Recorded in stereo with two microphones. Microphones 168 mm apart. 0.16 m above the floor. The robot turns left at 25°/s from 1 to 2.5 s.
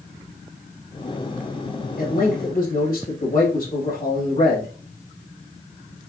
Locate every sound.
2.0 s a man speaking: 60° left (ahead or behind), 3 m; by 4.7 s 55° left (ahead or behind), 3 m